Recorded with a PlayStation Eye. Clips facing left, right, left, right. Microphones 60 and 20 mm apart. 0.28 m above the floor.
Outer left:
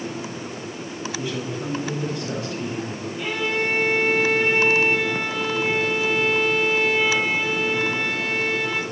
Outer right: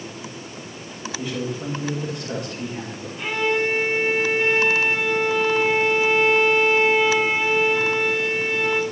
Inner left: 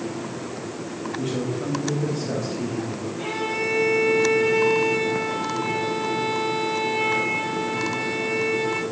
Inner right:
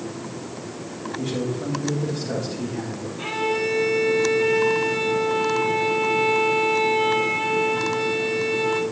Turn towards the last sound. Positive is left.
turn(degrees=0)  # may be behind; listen again after turning